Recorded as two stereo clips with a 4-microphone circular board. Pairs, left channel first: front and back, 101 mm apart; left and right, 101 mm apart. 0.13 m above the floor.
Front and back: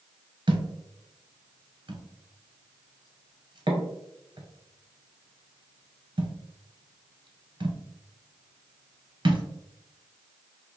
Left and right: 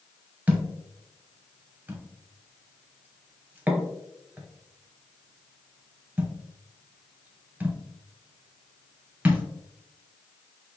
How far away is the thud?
About 0.8 m.